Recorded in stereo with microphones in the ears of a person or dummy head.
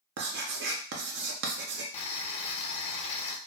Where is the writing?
55° right (ahead or behind), 0.6 m.